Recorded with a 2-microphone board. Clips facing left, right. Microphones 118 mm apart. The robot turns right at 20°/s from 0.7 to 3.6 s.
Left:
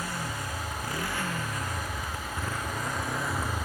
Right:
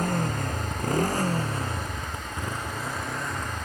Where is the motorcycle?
50° right; by 3.6 s 10° left.